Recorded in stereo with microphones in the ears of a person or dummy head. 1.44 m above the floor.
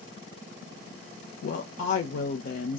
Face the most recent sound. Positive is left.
turn(degrees=50)  # may be behind; listen again after turning